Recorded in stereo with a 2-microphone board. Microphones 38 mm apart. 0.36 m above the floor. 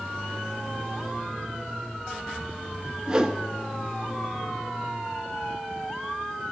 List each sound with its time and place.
3.1 s a whoosh: 20° right (ahead or behind), 0.8 m